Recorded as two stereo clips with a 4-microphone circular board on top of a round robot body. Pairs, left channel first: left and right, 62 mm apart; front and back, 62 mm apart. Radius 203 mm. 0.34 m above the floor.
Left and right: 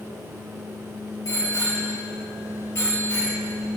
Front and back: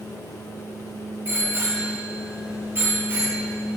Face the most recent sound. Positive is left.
turn(degrees=130)